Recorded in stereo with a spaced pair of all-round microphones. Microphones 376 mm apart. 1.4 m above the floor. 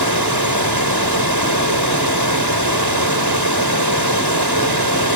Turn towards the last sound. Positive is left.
turn(degrees=-85)